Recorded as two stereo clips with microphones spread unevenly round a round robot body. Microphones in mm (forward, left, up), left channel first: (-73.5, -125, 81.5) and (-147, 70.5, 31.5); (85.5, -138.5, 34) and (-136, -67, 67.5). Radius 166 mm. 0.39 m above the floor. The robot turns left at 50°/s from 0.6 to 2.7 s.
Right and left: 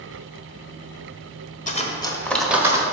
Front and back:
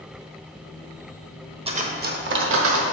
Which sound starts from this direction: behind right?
Cutlery clinking, at 1.7 s.